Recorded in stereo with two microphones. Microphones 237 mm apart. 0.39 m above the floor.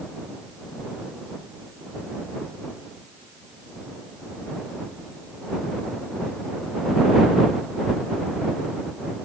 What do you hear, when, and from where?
Only background noise.